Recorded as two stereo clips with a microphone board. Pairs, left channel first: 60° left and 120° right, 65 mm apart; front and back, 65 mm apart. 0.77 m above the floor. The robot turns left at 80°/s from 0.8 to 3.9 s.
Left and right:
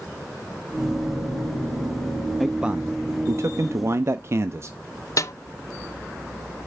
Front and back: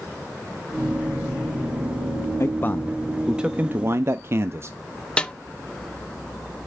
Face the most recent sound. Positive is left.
turn(degrees=70)